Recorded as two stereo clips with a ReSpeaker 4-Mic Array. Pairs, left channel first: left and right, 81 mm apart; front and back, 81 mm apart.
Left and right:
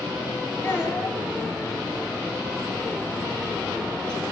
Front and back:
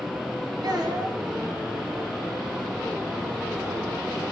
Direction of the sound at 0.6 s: 150° left.